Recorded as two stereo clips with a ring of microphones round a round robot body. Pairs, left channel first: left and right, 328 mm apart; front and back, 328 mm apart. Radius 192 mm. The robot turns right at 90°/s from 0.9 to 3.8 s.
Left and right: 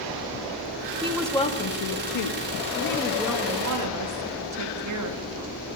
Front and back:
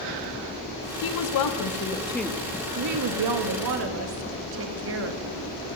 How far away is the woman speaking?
About 1.5 m.